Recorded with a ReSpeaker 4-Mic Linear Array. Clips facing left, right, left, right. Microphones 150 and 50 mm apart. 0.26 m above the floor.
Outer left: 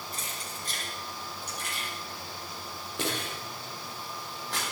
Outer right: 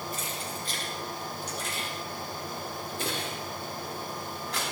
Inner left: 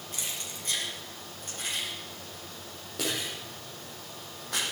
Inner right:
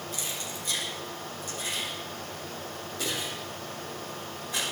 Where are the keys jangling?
35° left (ahead or behind), 5.5 m; by 4.6 s 85° left, 9 m.